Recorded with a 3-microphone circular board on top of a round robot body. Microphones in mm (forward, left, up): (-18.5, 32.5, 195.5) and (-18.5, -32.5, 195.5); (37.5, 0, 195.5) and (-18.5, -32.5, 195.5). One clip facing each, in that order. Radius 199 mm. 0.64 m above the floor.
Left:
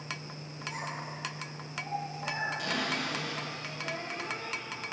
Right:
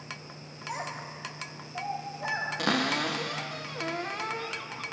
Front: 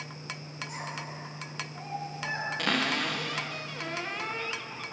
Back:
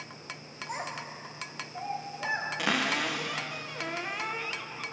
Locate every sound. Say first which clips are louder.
0.7 s a child speaking: right 3 dB, back 3 dB; 100° right, 2.5 m; by 2.5 s 80° right, 3 m
2.6 s a cupboard door: right 5 dB, front 1 dB; 65° right, 0.6 m